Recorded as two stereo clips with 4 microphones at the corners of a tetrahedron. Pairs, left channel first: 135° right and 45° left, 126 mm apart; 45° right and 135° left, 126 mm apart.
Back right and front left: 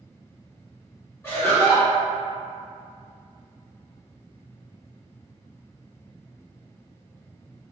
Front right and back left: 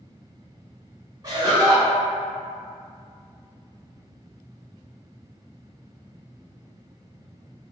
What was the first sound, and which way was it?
Laughter, 165° left.